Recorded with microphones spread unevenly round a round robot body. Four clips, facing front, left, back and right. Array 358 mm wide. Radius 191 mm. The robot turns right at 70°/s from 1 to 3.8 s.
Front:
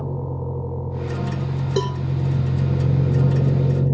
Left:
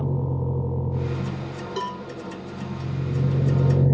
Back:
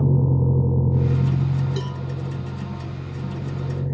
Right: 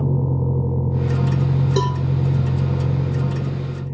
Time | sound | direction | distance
0.0 | a vehicle | 155° right | ?
1.8 | a cowbell | 25° right | ?